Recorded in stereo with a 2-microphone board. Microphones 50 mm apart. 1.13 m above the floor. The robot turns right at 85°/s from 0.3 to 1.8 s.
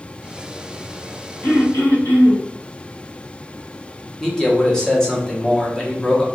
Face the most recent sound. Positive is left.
turn(degrees=10)  # may be behind; listen again after turning